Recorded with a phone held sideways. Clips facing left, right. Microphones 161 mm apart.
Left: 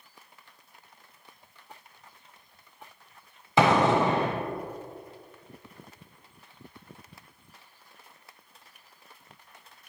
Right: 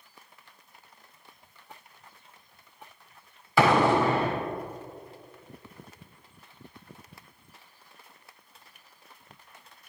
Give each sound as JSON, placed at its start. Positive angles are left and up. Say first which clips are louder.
{"t": 3.6, "sound": "an explosion", "louder": "even", "side_deg": 20, "distance_m": 0.8}